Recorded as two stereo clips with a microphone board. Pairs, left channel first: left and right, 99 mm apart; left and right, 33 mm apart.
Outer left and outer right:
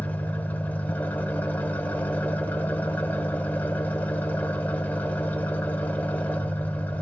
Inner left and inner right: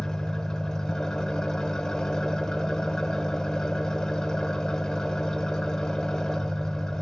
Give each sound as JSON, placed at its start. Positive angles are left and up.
{"t": 0.0, "sound": "an engine running", "side_deg": 20, "distance_m": 0.8}